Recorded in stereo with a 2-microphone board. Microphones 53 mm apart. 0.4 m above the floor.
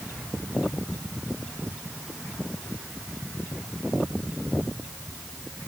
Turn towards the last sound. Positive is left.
No sound to turn to.